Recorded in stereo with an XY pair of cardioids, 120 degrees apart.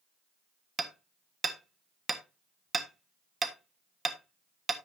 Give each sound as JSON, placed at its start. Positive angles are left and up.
{"t": 0.8, "sound": "hammering", "azimuth_deg": -25, "distance_m": 1.4}